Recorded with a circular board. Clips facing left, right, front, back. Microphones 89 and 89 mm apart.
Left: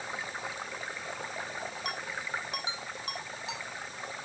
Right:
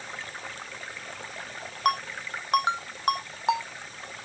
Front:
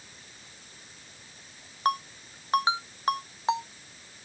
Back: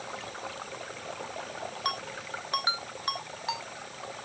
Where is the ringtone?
60° right.